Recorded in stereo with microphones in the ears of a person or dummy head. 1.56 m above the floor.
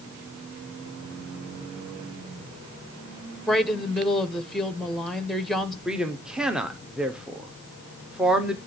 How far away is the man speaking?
About 0.8 m.